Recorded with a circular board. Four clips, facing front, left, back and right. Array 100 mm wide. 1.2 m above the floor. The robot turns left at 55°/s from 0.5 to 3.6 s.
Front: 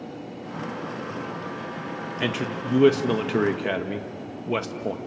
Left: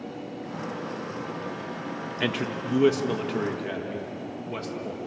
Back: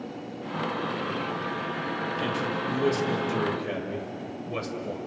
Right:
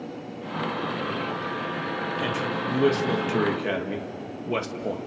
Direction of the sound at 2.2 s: 50° left.